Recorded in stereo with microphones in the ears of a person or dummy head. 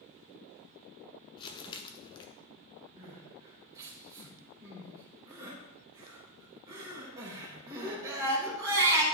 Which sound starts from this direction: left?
Crumpling, at 1.4 s.